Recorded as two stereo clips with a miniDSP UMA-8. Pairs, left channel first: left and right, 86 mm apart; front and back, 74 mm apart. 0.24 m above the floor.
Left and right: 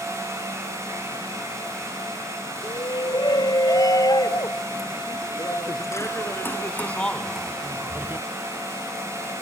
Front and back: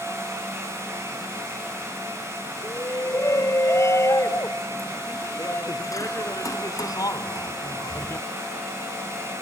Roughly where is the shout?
Ahead left.